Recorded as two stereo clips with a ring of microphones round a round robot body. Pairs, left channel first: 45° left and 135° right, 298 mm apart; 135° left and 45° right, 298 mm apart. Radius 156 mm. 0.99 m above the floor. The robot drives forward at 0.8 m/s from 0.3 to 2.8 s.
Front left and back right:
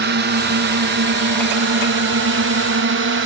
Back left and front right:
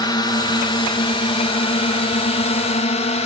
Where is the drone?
155° right; by 3.3 s 165° right.